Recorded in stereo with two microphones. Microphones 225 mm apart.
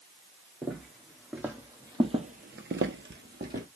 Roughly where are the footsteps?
Centre.